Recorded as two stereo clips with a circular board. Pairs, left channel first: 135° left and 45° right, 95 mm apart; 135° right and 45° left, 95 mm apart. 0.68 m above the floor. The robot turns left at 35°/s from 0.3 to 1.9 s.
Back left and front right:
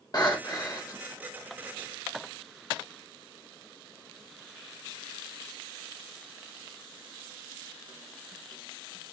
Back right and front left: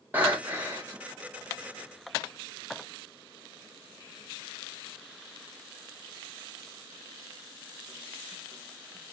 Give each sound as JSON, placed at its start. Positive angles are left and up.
{"t": 0.1, "sound": "breathing", "azimuth_deg": 110, "distance_m": 1.0}